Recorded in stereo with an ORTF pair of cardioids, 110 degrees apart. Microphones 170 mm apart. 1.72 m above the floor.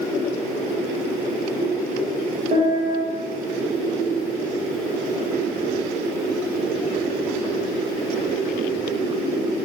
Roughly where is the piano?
Ahead right.